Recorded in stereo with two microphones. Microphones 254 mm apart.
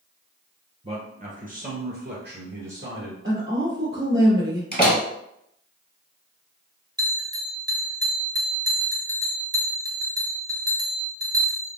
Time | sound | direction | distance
0.8 | a man speaking | 25° right (ahead or behind) | 1.4 m
3.2 | a woman speaking | 50° right (ahead or behind) | 1.9 m
4.7 | a door slam | 40° left (ahead or behind) | 1.8 m
7.0 | a bell | 15° right (ahead or behind) | 1.0 m